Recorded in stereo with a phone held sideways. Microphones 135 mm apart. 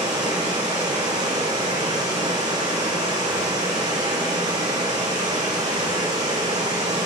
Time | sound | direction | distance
0.0 | running water | 55° right (ahead or behind) | 2 m